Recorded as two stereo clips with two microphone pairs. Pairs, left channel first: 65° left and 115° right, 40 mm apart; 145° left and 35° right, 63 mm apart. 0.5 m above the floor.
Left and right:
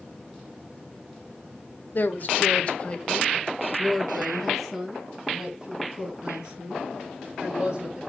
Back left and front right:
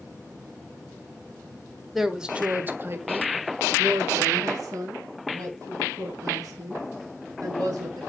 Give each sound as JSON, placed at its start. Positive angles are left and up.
{"t": 1.9, "sound": "a woman speaking", "azimuth_deg": 55, "distance_m": 1.3}